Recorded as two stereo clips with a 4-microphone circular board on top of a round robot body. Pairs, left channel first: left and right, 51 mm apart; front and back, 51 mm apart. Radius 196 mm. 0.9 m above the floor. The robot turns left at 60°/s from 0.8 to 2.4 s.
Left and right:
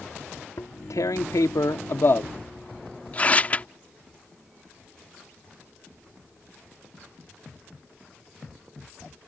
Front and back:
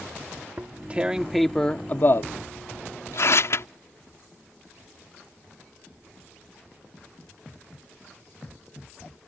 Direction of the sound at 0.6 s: 125° left.